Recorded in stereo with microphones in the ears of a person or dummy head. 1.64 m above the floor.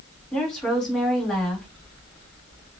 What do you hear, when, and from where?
0.3 s a woman speaking: centre (ahead or behind), 2.5 m